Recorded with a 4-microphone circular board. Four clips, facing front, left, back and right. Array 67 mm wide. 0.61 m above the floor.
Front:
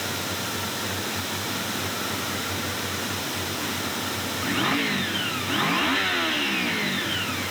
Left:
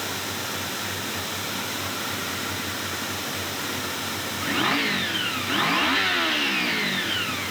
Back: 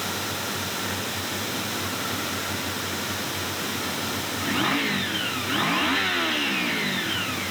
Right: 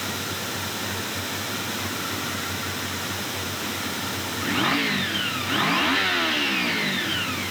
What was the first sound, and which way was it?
Only background noise.